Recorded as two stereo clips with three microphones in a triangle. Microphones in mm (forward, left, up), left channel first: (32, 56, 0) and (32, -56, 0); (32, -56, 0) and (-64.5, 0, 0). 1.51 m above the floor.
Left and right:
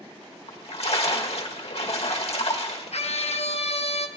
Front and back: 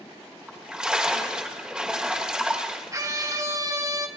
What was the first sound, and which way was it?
A splash, 70° left.